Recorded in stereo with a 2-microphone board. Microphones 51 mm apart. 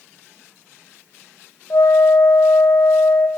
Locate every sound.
1.7 s a flute: 80° left, 6 m